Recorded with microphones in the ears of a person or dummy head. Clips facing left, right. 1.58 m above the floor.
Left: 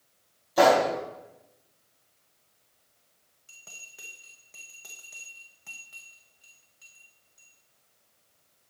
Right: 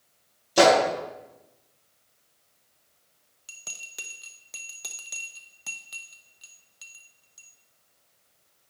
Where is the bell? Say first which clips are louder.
Right 5 dB; 75° right (ahead or behind), 0.7 m.